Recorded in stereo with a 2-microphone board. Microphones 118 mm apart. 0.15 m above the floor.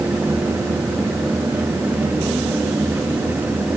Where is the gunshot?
I don't hear a gunshot.